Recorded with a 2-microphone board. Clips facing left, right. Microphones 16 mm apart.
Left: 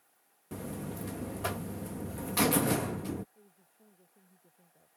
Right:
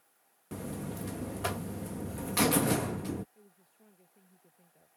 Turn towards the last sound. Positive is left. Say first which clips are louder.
# right 1 dB
turn(degrees=-50)  # may be behind; listen again after turning